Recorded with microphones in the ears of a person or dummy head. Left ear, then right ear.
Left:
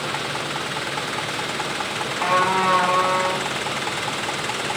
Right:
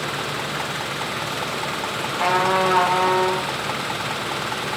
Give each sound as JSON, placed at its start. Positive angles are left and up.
{"t": 2.1, "sound": "a trumpet", "side_deg": -60, "distance_m": 0.8}